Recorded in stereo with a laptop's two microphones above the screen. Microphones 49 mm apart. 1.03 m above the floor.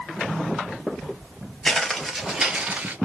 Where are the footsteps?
5° left (ahead or behind), 1.4 m; by 3.0 s 30° right (ahead or behind), 1.3 m.